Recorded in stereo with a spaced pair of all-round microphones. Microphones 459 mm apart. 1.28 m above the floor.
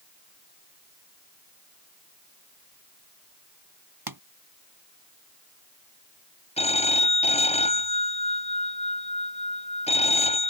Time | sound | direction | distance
4.1 | a pop | 50° right (ahead or behind) | ?
6.6 | a phone ringing | 15° left (ahead or behind) | ?